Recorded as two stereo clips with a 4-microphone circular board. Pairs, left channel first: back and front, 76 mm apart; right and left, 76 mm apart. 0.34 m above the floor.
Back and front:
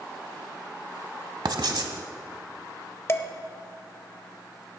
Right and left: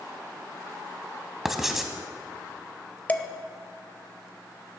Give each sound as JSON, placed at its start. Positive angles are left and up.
{"t": 1.4, "sound": "writing", "azimuth_deg": 5, "distance_m": 1.1}
{"t": 3.1, "sound": "dishes clattering", "azimuth_deg": -145, "distance_m": 0.7}